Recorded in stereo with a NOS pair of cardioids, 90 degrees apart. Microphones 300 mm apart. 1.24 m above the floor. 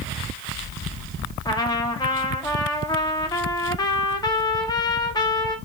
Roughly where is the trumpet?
Ahead.